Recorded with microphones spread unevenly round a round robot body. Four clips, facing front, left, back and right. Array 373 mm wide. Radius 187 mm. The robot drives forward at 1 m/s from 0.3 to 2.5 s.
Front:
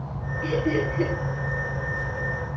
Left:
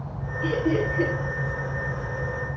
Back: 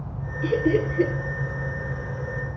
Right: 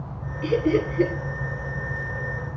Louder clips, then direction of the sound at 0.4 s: Right 2 dB, back 3 dB; 145° right.